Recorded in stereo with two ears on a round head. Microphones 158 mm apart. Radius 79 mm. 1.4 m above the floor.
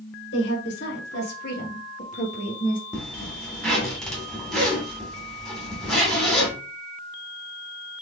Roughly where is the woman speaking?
Left.